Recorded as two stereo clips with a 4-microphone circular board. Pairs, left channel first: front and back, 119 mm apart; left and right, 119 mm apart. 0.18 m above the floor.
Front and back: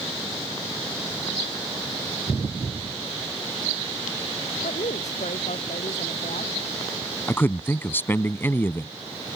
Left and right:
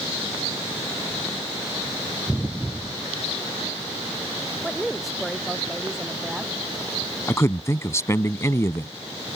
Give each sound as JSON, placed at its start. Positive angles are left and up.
{"t": 4.6, "sound": "a woman speaking", "azimuth_deg": 0}
{"t": 7.3, "sound": "a man speaking", "azimuth_deg": 55}